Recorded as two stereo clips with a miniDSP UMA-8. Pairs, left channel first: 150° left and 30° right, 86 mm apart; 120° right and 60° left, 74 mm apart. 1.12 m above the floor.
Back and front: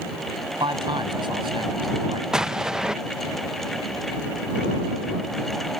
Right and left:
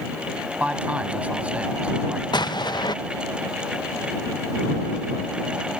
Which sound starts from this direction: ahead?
A man speaking, at 0.6 s.